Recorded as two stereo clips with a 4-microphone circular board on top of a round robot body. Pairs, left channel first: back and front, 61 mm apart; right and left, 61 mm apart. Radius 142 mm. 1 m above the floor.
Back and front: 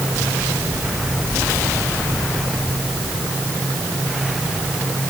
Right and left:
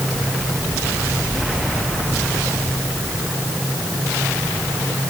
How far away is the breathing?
I don't hear breathing.